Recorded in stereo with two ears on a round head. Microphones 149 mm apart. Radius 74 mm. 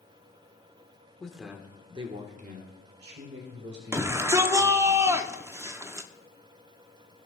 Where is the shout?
15° right (ahead or behind), 0.7 m.